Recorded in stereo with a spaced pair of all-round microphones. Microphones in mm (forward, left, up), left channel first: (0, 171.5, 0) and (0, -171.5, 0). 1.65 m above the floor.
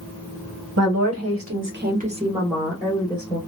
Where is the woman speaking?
45° right (ahead or behind), 0.9 m; by 3.4 s 15° left (ahead or behind), 1.0 m.